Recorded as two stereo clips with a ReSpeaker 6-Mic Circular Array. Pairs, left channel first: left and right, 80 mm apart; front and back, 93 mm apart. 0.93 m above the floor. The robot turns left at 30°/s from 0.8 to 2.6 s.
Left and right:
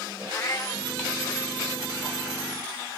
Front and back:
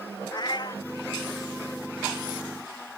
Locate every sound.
0.3 s a cat meowing: 40° left; by 0.8 s 35° left